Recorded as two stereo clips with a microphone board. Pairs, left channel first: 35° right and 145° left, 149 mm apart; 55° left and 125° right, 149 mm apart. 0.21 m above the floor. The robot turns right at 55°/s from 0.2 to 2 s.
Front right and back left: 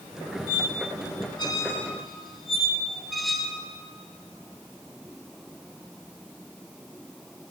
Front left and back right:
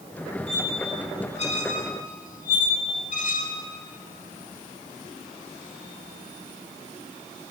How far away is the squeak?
About 0.9 m.